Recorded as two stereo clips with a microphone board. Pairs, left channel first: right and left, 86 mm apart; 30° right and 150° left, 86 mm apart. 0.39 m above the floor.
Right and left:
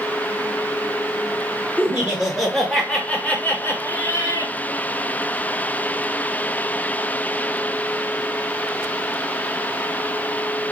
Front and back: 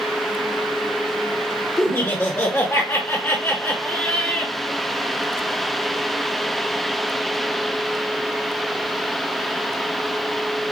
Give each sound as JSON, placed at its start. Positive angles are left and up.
{"t": 1.8, "sound": "laughter", "azimuth_deg": 20, "distance_m": 1.7}